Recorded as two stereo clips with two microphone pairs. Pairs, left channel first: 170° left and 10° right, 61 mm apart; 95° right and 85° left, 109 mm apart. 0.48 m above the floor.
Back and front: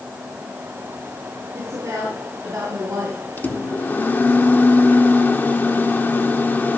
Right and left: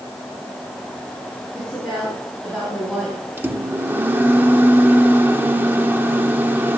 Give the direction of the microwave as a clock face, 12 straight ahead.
7 o'clock.